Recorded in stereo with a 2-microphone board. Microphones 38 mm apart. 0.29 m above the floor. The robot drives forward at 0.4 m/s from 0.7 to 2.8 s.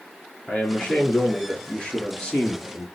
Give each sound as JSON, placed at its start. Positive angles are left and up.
{"t": 0.5, "sound": "a man speaking", "side_deg": 25, "distance_m": 4.0}